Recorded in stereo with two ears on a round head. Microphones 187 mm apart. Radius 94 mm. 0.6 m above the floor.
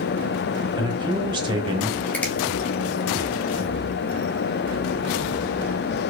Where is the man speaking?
25° right (ahead or behind), 0.8 m.